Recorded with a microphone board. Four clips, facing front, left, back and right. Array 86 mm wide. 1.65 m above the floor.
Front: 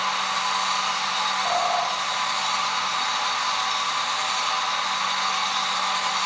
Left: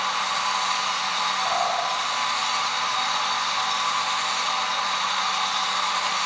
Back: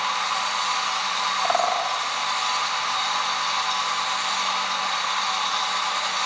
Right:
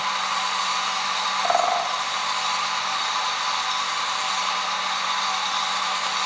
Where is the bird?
120° right, 1.5 m.